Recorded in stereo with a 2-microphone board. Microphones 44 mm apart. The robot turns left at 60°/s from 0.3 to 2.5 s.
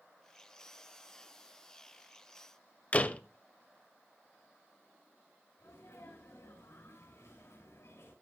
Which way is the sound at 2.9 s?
30° left (ahead or behind).